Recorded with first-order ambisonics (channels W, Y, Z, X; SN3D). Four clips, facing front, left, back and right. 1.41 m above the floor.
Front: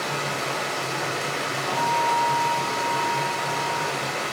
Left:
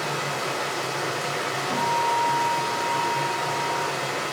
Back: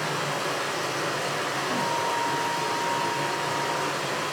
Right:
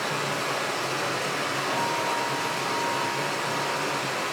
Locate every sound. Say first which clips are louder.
0.0 s running water: even, front 1 dB; 20° left, 1.2 m
1.7 s a guitar: left 6 dB, front 7 dB; 160° left, 1.3 m